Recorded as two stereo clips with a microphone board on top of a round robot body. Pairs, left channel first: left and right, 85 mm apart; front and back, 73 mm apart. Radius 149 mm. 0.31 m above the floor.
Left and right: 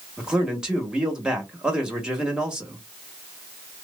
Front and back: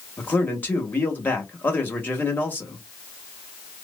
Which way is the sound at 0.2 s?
20° right.